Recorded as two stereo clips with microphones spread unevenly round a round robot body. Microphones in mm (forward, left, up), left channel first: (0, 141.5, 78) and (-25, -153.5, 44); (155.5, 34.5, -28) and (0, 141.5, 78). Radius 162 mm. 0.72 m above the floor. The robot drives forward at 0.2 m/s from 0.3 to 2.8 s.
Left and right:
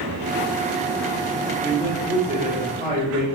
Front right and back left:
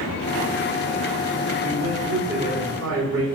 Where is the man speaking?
170° right, 2 m.